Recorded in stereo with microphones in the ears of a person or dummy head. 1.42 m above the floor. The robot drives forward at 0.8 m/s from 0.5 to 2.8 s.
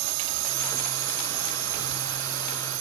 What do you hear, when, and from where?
0.0 s a drone: 45° right (ahead or behind); by 2.8 s 65° right (ahead or behind)